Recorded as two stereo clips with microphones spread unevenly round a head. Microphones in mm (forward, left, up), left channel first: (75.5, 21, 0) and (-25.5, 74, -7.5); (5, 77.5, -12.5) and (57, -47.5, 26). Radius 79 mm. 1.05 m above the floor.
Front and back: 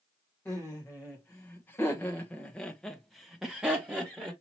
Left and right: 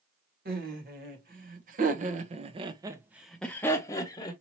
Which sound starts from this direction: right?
Laughter, at 0.5 s.